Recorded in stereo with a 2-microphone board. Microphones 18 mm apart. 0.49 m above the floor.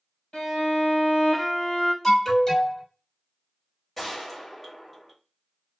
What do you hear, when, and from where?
0.3 s a violin: 50° left (ahead or behind), 1.4 m
2.0 s an alarm: 20° left (ahead or behind), 1.5 m
4.0 s a gunshot: 10° left (ahead or behind), 1.5 m